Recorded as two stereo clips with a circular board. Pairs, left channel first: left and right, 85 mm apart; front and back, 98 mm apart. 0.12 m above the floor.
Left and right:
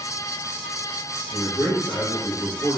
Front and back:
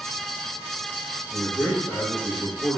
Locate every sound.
1.3 s a man speaking: 75° left, 1.7 m